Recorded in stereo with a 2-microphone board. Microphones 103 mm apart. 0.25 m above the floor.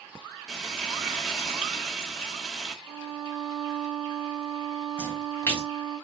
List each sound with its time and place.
0.5 s frying: 5° left (ahead or behind), 1.3 m
2.9 s a violin: 10° right (ahead or behind), 1.3 m
5.0 s a splash: 25° left (ahead or behind), 1.6 m